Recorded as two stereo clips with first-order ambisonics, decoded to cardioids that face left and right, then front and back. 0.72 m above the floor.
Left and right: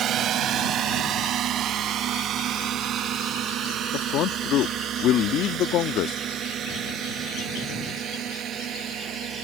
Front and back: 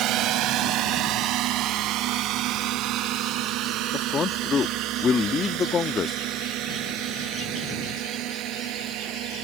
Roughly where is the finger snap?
I don't hear a finger snap.